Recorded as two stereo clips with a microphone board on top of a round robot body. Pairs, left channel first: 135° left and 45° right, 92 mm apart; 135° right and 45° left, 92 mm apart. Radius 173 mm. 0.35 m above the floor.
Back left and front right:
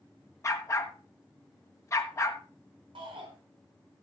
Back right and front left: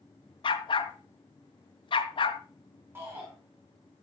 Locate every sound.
0.4 s a dog barking: 165° right, 1.4 m
3.0 s a shout: 20° right, 5 m